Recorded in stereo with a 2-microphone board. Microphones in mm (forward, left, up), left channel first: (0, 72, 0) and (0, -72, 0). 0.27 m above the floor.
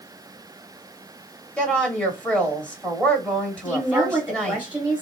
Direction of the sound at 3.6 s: 10° right (ahead or behind).